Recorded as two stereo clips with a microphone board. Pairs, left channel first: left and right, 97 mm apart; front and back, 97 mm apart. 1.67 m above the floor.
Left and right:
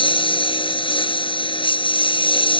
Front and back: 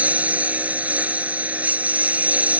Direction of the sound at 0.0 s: 105° left.